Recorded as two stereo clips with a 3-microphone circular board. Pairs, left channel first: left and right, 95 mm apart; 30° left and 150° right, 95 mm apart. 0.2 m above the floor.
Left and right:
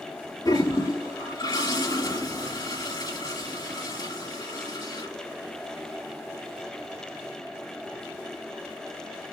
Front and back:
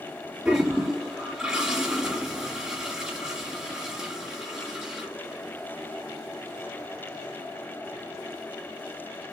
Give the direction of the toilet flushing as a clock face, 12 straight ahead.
8 o'clock.